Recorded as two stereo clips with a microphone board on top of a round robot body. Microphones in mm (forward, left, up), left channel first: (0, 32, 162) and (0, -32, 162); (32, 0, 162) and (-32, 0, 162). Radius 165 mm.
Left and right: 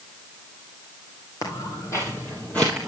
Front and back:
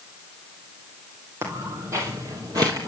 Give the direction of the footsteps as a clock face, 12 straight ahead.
8 o'clock.